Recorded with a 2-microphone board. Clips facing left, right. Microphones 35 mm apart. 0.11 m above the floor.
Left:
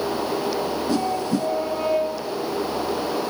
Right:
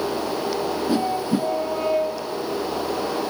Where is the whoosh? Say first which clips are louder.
Right 1 dB; 20° right (ahead or behind), 0.8 m.